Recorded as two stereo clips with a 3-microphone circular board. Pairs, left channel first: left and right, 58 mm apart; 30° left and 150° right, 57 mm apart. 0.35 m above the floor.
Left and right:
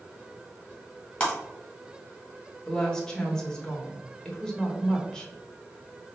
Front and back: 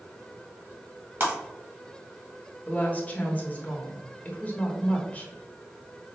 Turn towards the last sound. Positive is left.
turn(degrees=30)